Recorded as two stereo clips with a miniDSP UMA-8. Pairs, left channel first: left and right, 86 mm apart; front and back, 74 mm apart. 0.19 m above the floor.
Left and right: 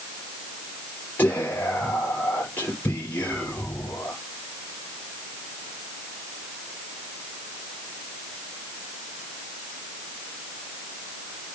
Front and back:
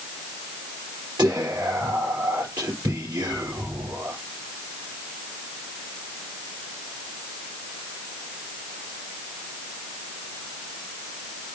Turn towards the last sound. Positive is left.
turn(degrees=160)